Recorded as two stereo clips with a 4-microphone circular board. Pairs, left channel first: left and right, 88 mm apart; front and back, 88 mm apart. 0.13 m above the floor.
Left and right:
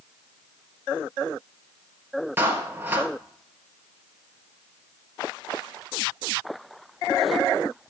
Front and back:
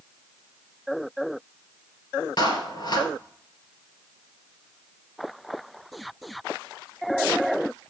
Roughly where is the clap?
Ahead right.